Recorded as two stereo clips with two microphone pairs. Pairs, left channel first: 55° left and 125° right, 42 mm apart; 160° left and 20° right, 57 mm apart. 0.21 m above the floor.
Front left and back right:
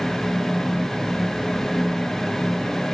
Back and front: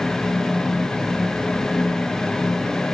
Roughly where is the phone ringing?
No phone ringing in this recording.